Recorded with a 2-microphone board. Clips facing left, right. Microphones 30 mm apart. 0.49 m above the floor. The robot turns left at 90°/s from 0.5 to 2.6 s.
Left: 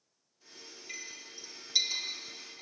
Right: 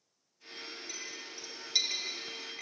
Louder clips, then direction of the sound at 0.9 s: Right 2 dB; 55° left (ahead or behind).